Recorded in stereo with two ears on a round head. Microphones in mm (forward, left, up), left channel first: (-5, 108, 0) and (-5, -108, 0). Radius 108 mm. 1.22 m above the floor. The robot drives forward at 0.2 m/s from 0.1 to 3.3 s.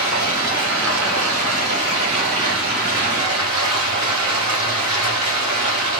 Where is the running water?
60° right (ahead or behind), 1.7 m; by 6.0 s 65° right (ahead or behind), 1.7 m.